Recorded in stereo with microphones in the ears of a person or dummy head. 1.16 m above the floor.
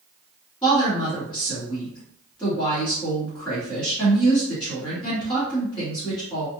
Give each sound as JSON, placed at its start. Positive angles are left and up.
{"t": 0.6, "sound": "a woman speaking", "side_deg": 15, "distance_m": 1.8}